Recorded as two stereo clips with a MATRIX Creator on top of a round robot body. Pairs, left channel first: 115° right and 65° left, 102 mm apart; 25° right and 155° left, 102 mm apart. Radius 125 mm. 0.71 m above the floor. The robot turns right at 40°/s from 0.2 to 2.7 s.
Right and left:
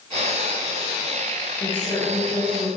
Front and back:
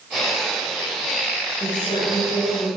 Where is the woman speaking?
70° right, 4 m; by 2.7 s 30° right, 4 m.